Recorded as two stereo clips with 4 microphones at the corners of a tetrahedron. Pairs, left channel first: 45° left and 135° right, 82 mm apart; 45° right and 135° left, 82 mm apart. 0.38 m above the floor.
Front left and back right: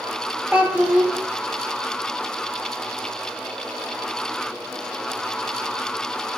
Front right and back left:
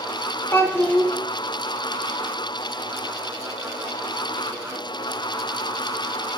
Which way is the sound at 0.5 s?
75° right.